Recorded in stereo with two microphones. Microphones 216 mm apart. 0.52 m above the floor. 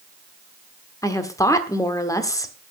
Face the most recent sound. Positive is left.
turn(degrees=15)  # may be behind; listen again after turning